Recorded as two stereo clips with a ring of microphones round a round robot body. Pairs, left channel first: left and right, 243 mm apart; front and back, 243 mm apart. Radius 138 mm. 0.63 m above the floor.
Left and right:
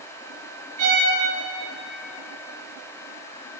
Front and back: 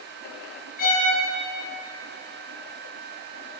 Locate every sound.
0.8 s a violin: 60° right, 5.5 m